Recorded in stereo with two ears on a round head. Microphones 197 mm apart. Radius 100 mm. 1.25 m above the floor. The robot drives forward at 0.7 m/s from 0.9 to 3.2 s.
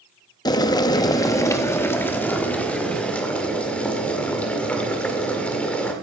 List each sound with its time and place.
0.5 s boiling: 20° left (ahead or behind), 0.6 m; by 5.9 s 5° left (ahead or behind), 1.8 m